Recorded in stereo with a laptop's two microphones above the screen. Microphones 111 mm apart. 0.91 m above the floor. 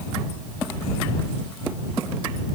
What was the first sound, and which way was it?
Only background noise.